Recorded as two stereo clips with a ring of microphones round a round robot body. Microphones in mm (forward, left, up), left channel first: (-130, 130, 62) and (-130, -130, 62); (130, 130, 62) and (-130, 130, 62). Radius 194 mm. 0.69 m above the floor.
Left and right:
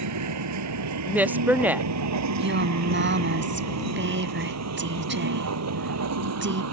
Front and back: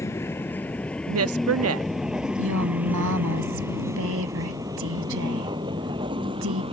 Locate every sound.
0.0 s a vehicle: 85° right; by 6.7 s 105° right
1.1 s a woman speaking: 175° right
2.4 s a woman speaking: 130° right